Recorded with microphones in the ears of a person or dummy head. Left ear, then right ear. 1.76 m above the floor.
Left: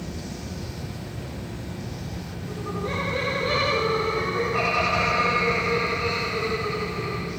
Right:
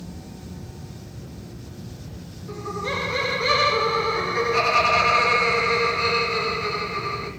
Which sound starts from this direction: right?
Laughter, at 2.5 s.